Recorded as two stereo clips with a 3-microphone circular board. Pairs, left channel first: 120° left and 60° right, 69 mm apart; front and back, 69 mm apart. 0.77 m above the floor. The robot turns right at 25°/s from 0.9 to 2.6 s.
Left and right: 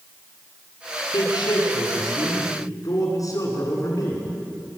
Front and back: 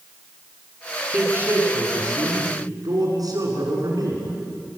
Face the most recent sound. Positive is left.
turn(degrees=155)